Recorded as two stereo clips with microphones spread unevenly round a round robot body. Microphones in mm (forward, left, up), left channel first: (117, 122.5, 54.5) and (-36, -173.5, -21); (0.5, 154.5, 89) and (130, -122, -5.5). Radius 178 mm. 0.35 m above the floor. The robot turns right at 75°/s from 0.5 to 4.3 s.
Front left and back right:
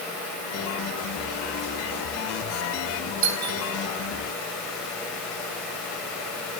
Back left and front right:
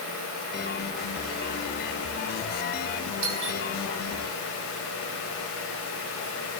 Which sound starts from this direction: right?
A doorbell, at 3.2 s.